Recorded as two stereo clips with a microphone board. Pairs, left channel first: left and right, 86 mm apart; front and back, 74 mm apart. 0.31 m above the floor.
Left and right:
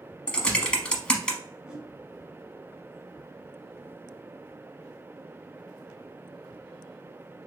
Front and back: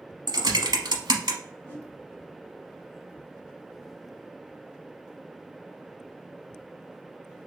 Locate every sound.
0.3 s typing on a keyboard: 170° left, 0.8 m
1.7 s a whoosh: 20° right, 1.1 m